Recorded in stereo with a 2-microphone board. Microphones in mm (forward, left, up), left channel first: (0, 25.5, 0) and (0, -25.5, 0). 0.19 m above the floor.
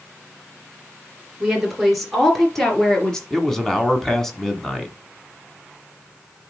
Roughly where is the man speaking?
Centre.